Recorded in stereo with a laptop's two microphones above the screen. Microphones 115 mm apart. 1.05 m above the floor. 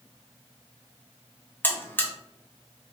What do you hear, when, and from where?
1.6 s a buzzer: 15° left (ahead or behind), 0.8 m